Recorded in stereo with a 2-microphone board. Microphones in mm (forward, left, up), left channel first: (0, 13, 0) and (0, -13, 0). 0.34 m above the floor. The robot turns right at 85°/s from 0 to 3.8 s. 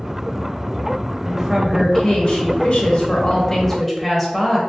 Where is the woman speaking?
40° right, 1.1 m; by 4.6 s straight behind, 1.1 m.